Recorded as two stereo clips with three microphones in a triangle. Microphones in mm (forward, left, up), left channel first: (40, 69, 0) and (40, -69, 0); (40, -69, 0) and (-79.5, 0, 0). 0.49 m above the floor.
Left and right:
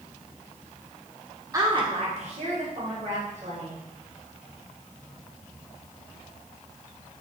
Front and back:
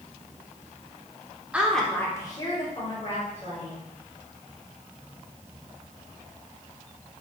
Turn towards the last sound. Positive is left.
turn(degrees=-65)